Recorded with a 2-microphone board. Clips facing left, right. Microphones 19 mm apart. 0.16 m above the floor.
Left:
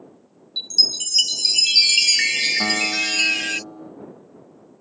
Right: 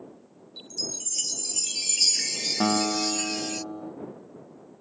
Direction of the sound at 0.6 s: 75° left (ahead or behind).